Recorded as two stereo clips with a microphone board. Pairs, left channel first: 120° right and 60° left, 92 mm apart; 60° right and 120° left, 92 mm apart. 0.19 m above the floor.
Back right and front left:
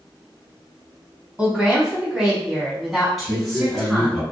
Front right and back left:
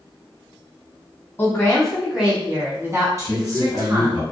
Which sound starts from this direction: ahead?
A woman speaking, at 1.4 s.